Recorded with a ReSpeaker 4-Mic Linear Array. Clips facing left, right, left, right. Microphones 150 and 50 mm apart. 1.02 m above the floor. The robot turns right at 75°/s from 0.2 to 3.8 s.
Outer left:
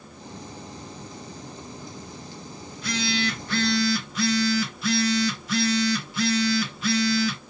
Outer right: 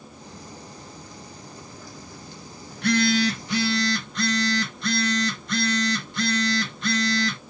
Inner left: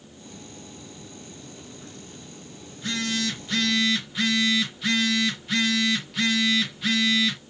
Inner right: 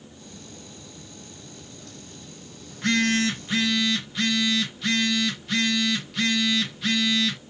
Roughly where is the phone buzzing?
Right.